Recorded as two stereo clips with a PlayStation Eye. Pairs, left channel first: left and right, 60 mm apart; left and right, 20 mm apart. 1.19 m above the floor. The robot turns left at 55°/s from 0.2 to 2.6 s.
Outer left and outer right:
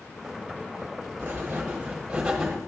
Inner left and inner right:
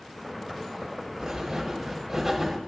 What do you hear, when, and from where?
1.2 s writing: 105° right, 1.2 m; by 2.6 s straight behind, 1.2 m